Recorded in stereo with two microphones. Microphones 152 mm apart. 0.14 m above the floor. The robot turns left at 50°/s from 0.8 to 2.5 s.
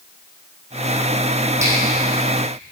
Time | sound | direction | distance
1.6 | a finger snap | 20° right (ahead or behind) | 4 m